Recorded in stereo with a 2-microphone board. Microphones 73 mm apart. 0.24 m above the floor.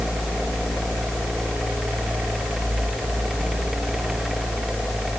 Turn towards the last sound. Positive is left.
No sound to turn to.